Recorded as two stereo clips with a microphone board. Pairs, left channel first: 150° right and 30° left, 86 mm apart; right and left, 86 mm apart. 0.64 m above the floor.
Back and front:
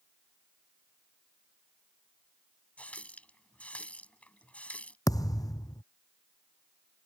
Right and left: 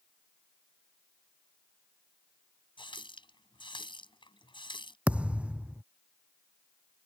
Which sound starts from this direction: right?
A running tap, at 2.8 s.